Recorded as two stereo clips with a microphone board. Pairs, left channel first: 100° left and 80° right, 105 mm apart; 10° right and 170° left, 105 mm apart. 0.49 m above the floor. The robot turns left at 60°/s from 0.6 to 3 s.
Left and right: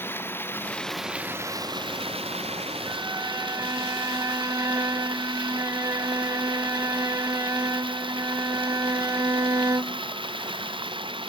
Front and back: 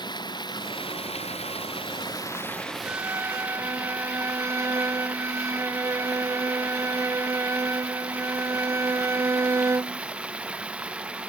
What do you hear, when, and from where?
0.0 s running water: 30° left; by 11.3 s 110° right
2.9 s a violin: 120° right; by 10.0 s 130° right